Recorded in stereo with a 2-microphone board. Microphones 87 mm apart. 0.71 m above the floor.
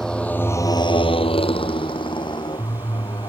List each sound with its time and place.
0.0 s a motorcycle: 5° left (ahead or behind); by 3.3 s 50° left (ahead or behind)